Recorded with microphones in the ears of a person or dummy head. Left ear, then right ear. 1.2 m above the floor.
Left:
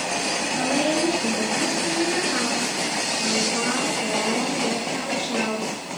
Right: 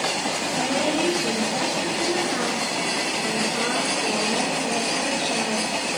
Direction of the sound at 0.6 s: 55° left (ahead or behind).